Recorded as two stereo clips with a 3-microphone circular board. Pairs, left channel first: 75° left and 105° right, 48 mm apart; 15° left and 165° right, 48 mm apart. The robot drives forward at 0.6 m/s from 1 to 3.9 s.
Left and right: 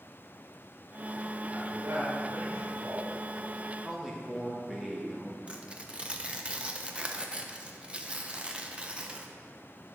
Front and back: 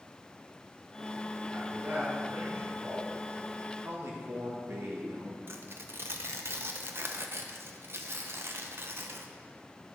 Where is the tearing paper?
165° right, 1.0 m.